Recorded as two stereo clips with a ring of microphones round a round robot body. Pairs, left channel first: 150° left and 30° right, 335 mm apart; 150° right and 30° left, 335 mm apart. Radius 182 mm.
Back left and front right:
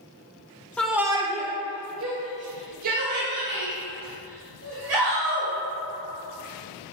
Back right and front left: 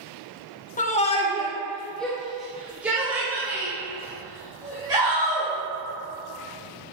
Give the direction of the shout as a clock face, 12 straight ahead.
4 o'clock.